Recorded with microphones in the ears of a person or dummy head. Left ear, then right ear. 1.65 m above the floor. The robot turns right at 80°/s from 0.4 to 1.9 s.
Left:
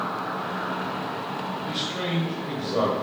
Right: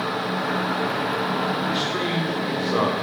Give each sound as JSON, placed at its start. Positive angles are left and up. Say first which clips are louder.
{"t": 1.7, "sound": "a man speaking", "louder": "right 5 dB", "side_deg": -10, "distance_m": 1.1}